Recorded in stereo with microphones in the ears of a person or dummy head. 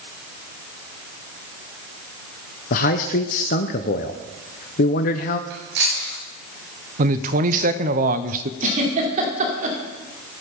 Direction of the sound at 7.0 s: 45° right (ahead or behind).